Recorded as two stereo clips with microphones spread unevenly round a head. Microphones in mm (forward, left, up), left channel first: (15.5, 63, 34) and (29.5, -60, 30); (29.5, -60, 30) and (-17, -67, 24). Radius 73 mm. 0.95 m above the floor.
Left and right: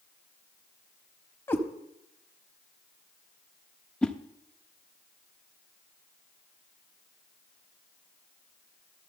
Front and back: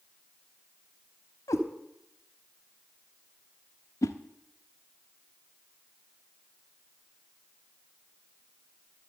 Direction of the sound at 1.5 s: 25° left.